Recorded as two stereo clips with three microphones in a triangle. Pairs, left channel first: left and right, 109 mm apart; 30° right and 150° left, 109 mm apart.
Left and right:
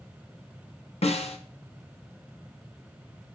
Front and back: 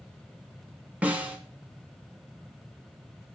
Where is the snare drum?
75° left, 1.1 m.